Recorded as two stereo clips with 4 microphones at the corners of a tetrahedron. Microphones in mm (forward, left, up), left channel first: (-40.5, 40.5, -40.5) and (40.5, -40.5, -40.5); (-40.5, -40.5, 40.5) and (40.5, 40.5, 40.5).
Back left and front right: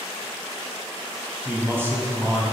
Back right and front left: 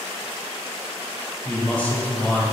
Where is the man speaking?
75° right, 1.2 m.